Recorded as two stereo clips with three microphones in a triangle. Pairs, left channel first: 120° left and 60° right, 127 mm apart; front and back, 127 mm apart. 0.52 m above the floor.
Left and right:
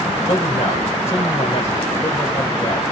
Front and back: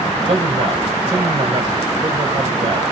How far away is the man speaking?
About 2.5 m.